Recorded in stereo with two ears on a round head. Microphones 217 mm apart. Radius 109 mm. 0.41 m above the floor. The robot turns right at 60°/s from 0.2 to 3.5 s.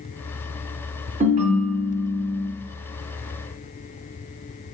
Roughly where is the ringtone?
Ahead right.